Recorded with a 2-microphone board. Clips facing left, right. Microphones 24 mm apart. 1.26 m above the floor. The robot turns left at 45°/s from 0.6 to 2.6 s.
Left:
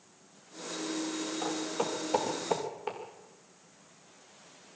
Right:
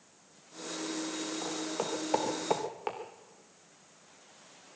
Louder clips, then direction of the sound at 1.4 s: Left 4 dB; 10° left (ahead or behind).